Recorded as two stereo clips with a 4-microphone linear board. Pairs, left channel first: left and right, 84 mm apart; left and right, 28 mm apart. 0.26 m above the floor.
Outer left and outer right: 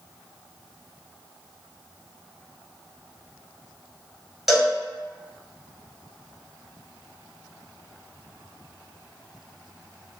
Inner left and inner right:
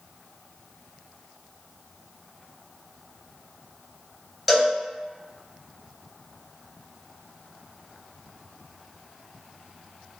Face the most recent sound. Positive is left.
turn(degrees=-5)  # may be behind; listen again after turning